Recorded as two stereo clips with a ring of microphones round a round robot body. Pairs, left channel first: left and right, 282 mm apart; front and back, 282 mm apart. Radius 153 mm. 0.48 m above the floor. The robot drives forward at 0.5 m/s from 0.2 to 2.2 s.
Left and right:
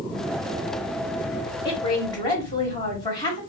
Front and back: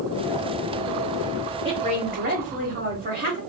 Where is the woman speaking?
140° left, 1.0 m; by 3.4 s 155° left, 1.1 m.